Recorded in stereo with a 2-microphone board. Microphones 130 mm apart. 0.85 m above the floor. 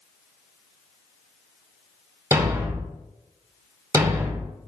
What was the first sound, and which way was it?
A thud, 20° right (ahead or behind).